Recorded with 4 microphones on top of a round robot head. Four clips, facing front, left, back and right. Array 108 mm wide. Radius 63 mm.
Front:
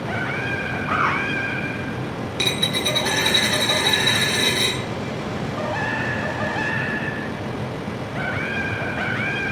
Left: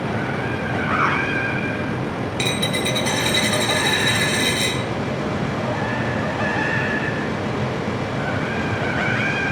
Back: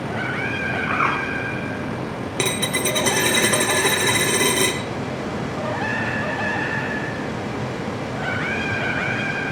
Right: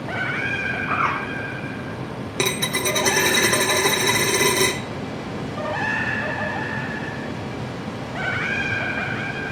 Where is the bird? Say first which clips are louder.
Left 2 dB, front 1 dB; 145° left, 4.5 m.